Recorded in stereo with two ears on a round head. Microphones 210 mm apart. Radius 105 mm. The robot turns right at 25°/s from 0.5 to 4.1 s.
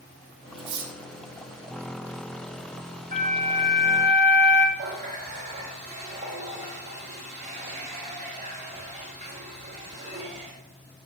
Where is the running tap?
30° right (ahead or behind), 2 m.